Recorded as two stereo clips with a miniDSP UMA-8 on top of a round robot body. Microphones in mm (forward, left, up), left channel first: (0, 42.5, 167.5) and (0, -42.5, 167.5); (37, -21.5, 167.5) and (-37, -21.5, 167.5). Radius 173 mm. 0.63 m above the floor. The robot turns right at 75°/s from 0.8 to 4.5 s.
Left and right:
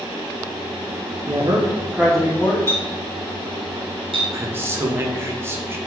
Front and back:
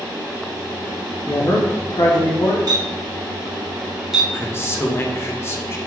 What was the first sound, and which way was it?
A man speaking, 60° right.